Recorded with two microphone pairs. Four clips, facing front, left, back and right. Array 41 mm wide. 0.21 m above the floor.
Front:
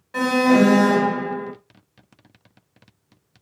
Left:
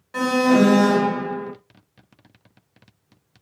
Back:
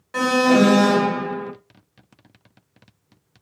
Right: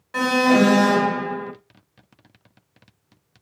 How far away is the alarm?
About 1.2 m.